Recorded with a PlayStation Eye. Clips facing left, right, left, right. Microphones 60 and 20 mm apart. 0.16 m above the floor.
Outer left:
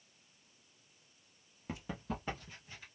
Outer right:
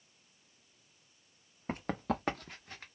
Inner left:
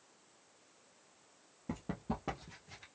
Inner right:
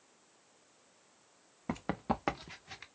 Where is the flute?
I don't hear a flute.